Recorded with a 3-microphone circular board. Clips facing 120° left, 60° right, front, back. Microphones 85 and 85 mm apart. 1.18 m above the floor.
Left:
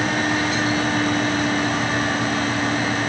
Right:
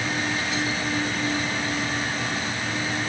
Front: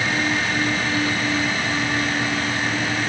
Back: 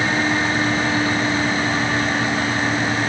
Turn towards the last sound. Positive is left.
No sound to turn to.